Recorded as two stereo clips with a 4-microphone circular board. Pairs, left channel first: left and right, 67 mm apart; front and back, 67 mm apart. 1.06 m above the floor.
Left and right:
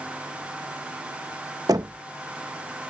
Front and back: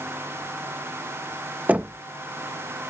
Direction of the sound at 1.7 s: 115° right.